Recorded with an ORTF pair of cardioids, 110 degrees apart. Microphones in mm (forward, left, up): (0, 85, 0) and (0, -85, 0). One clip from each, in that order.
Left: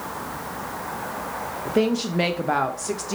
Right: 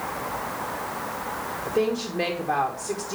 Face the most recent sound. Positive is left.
turn(degrees=30)